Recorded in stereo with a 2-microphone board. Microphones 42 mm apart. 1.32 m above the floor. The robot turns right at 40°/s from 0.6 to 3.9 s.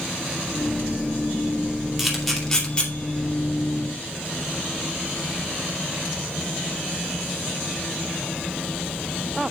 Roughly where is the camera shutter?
Centre.